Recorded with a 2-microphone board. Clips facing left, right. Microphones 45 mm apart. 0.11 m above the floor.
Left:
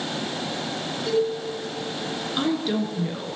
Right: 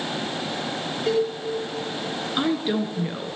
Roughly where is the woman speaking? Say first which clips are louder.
Right 1 dB; centre.